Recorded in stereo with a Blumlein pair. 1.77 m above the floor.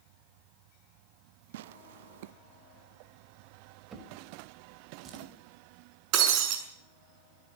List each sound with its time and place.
1.5 s tearing paper: 55° right, 0.7 m
3.9 s a drawer: 25° right, 4 m
6.1 s breaking glass: 40° right, 6 m